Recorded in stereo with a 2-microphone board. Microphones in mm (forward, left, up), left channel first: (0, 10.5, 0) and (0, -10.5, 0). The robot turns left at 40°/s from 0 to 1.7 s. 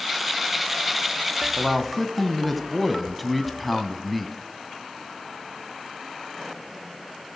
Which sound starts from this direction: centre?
A man speaking, at 1.6 s.